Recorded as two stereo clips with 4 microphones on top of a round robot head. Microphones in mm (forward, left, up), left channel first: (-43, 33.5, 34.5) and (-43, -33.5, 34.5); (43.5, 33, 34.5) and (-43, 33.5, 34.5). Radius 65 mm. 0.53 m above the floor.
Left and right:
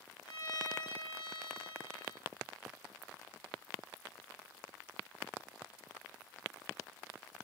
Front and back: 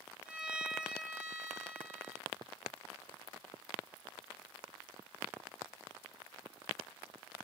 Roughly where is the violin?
Left.